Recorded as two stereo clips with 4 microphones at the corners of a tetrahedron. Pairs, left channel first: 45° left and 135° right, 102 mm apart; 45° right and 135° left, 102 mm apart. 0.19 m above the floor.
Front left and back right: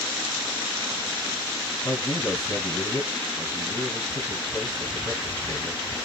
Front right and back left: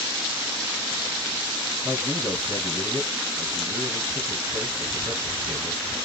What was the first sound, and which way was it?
A man speaking, 85° left.